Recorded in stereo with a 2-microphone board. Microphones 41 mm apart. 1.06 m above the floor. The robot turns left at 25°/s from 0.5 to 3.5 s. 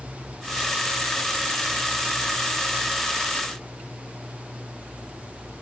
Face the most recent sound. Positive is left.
No sound to turn to.